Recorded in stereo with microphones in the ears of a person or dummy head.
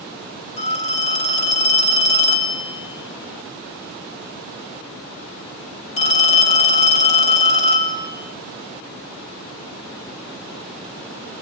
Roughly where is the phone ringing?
Left.